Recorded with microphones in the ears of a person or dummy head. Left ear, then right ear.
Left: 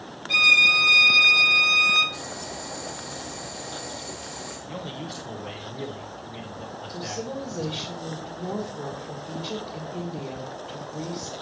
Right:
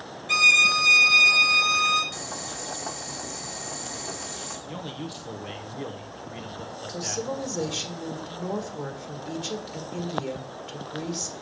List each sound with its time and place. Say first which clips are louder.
0.3 s a violin: left 1 dB; 35° right (ahead or behind), 1.2 m
2.1 s boiling: even; 45° right (ahead or behind), 1.9 m
4.7 s a man speaking: left 1 dB; 10° right (ahead or behind), 1.0 m
6.9 s a woman speaking: right 3 dB; 55° right (ahead or behind), 1.8 m